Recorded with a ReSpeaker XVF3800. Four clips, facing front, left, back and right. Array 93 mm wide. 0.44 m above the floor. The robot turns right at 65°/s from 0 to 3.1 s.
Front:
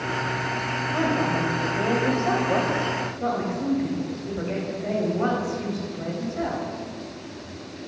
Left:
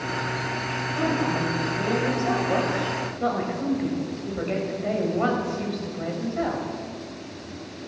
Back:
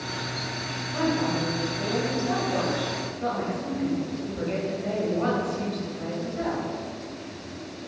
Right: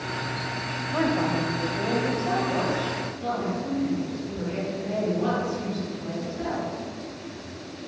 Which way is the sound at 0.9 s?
70° right.